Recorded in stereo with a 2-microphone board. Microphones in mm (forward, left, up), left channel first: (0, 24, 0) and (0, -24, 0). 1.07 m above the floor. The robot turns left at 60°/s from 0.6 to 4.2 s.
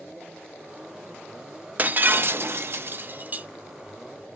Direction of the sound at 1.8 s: 45° right.